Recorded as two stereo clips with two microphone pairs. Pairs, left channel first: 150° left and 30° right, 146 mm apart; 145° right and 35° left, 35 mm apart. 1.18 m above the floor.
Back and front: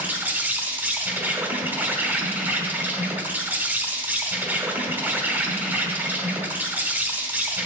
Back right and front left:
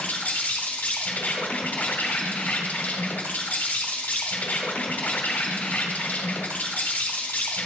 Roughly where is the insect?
Right.